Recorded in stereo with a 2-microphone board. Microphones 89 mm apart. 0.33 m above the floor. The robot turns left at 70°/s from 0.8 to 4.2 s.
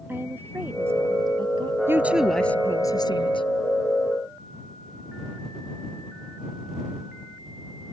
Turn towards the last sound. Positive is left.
turn(degrees=45)